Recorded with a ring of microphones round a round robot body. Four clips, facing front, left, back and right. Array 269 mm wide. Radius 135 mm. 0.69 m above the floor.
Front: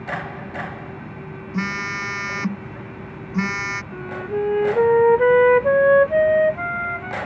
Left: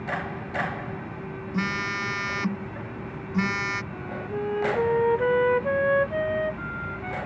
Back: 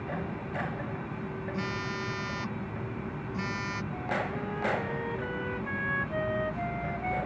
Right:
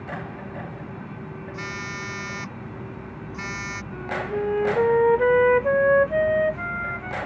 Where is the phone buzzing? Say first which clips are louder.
Left 7 dB, front 11 dB; 30° left.